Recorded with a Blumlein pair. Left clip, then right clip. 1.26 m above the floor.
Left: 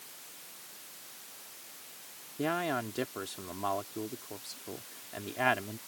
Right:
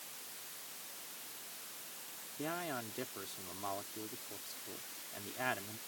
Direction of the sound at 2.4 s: 25° left.